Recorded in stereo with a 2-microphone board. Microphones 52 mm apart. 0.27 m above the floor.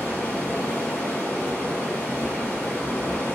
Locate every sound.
0.0 s running water: 35° left (ahead or behind), 1.8 m